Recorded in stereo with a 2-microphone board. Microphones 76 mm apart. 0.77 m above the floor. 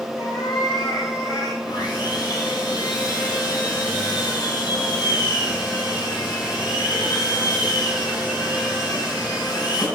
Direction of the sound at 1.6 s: 65° left (ahead or behind).